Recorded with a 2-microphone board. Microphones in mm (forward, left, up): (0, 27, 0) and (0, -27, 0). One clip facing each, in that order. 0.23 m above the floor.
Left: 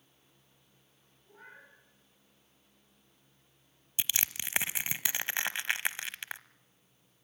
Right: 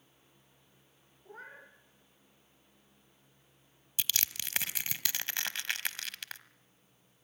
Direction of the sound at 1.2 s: 50° right (ahead or behind).